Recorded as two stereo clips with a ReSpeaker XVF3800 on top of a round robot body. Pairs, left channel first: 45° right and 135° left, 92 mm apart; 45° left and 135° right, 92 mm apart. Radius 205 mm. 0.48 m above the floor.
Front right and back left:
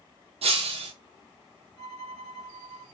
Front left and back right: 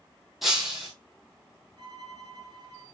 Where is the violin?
95° right, 3.5 m.